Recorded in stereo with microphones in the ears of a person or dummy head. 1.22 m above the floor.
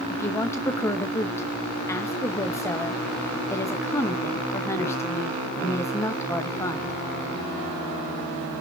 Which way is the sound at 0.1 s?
20° left (ahead or behind).